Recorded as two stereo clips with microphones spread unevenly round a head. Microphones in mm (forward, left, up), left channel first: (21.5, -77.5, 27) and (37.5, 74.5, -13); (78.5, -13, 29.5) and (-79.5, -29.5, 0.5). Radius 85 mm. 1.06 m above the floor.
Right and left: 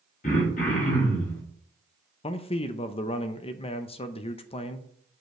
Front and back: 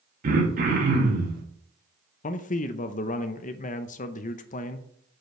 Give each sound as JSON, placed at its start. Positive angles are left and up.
{"t": 0.2, "sound": "throat clearing", "azimuth_deg": -150, "distance_m": 2.0}
{"t": 2.2, "sound": "a man speaking", "azimuth_deg": -40, "distance_m": 0.6}